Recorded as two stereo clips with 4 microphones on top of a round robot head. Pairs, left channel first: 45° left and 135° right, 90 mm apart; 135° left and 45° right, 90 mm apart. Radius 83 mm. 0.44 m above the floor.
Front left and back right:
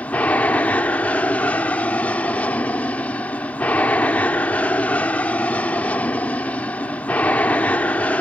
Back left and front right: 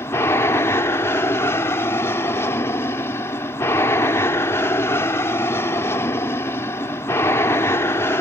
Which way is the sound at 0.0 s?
105° left.